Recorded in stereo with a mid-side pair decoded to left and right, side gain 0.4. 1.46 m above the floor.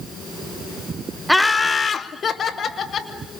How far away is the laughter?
About 0.6 m.